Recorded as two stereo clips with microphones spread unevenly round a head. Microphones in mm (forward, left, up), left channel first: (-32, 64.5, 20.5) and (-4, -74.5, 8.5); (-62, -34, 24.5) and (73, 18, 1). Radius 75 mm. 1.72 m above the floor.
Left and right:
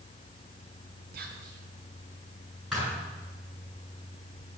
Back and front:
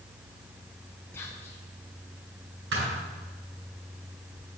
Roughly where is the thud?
Ahead.